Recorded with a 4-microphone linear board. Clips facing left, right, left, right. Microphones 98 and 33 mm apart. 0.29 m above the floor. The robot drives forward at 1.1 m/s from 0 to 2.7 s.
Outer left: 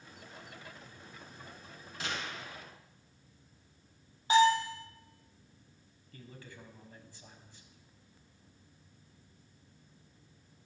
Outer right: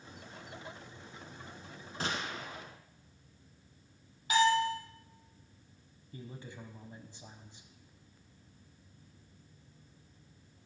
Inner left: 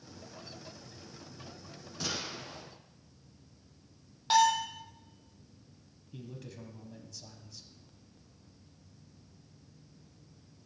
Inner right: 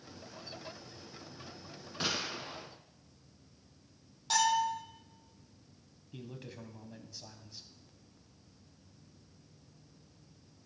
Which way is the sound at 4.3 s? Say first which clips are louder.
Outer left 2 dB, inner left 3 dB; 30° left (ahead or behind).